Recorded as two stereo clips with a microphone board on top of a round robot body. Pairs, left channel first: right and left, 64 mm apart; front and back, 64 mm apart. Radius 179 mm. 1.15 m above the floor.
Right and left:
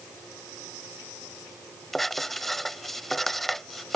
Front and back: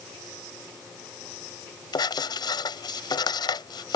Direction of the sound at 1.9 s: Straight ahead.